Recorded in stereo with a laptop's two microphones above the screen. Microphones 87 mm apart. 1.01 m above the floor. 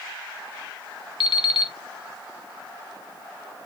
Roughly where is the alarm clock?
Left.